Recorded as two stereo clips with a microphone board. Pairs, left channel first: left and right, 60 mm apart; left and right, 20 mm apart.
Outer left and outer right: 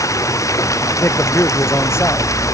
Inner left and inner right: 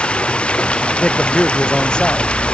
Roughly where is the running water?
Left.